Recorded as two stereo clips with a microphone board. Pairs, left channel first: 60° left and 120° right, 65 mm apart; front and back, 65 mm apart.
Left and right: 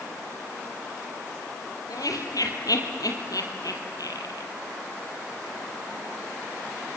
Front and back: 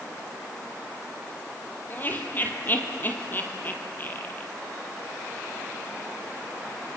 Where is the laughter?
55° left, 3 m.